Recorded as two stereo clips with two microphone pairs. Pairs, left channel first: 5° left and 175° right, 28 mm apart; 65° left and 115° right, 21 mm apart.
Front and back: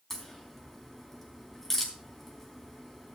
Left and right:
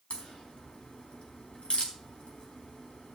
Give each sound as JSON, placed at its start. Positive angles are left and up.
{"t": 0.1, "sound": "a crack", "azimuth_deg": 85, "distance_m": 4.0}